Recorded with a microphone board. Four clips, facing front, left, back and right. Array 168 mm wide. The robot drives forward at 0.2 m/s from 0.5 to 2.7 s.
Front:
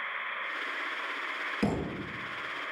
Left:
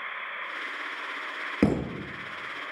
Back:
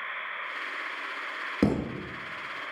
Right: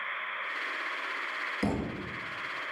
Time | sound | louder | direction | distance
1.6 | a thud | left 8 dB, back 5 dB | 125° left | 0.8 m